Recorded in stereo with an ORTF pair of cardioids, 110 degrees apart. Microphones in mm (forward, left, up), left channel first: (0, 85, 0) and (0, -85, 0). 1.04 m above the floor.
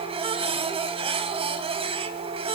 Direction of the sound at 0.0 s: 35° right.